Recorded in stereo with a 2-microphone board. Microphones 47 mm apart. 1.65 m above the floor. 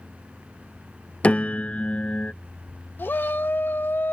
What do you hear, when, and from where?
1.2 s a piano: 30° left (ahead or behind)
3.0 s a shout: 45° left (ahead or behind)